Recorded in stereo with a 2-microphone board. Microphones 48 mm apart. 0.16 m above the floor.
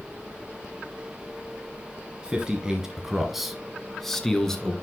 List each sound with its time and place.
2.2 s a man speaking: 20° right (ahead or behind), 1.3 m; by 4.7 s 10° left (ahead or behind), 1.6 m